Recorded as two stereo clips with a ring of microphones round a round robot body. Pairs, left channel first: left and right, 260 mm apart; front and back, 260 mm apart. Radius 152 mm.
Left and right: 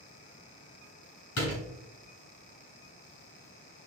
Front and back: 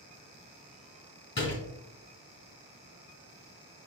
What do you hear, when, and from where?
1.4 s a door slam: 55° left, 3.5 m